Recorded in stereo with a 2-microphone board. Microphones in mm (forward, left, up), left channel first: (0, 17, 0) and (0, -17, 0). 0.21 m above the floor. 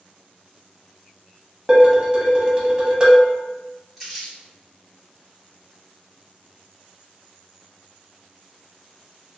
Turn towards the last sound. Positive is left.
turn(degrees=-5)  # may be behind; listen again after turning